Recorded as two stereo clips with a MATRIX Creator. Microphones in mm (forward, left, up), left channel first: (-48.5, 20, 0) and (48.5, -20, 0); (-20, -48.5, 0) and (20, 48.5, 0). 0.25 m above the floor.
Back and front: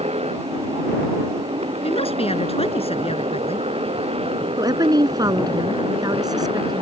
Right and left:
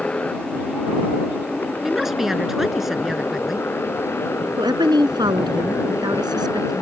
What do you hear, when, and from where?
0.0 s a motorcycle: 35° right; by 6.8 s 50° right
1.8 s a woman speaking: 155° left
4.6 s a woman speaking: 25° left